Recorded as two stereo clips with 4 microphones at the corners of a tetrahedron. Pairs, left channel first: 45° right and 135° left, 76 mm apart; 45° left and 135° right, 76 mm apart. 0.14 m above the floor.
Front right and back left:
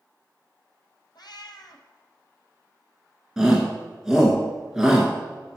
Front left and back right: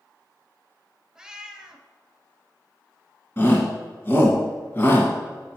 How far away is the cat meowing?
About 1.1 m.